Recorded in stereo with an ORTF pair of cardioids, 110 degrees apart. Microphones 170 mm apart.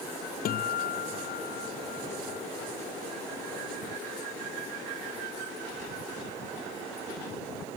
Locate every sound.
0.5 s a guitar: 60° left